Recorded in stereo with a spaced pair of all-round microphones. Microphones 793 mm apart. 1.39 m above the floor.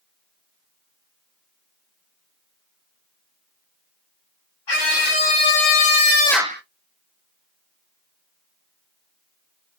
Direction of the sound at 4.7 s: 80° left.